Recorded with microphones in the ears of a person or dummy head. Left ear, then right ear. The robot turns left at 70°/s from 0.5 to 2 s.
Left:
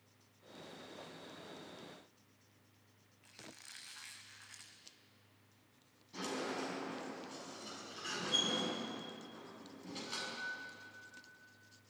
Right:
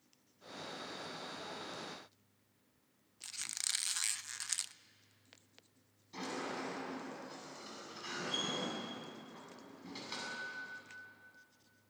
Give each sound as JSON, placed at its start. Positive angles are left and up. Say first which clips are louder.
{"t": 3.2, "sound": "a squeak", "louder": "right 14 dB", "side_deg": -75, "distance_m": 0.6}
{"t": 6.1, "sound": "a sliding door", "louder": "left 1 dB", "side_deg": -25, "distance_m": 8.5}